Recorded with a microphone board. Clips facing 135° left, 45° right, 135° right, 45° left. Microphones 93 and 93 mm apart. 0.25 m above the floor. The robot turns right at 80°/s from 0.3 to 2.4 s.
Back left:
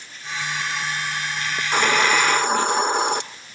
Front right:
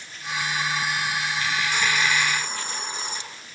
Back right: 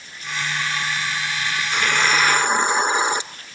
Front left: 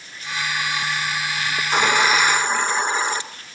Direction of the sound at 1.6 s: 85° left.